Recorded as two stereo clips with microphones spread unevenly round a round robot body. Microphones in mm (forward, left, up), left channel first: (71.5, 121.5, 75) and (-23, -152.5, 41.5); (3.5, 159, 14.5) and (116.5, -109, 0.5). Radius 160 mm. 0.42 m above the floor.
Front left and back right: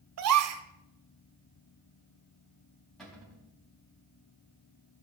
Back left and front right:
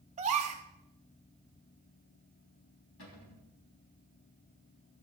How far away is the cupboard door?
About 3.5 m.